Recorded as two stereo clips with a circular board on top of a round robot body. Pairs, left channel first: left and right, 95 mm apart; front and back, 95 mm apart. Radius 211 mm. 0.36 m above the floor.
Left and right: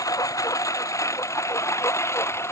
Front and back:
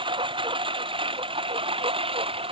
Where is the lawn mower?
145° left; by 2.5 s 155° left.